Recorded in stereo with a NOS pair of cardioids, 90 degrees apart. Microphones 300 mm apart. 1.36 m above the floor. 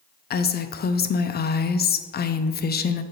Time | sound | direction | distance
0.3 | a woman speaking | 35° left | 0.5 m